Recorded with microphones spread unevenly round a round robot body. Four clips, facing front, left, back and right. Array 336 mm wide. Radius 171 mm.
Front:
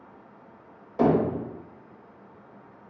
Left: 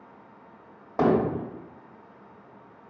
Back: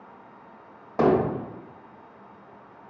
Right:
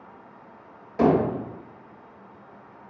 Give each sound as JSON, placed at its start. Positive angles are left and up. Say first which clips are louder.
{"t": 1.0, "sound": "hammering", "louder": "right 2 dB, back 1 dB", "azimuth_deg": 150, "distance_m": 1.9}